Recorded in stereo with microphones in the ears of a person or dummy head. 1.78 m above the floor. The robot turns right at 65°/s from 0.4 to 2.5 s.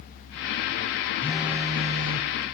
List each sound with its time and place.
1.2 s a phone buzzing: 170° left, 1.1 m; by 2.3 s 120° right, 1.1 m